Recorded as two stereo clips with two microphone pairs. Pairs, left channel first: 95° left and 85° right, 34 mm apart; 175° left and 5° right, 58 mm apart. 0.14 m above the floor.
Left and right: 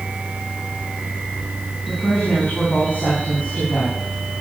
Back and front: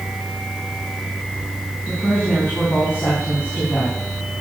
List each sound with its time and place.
1.9 s a woman speaking: 125° left, 7 m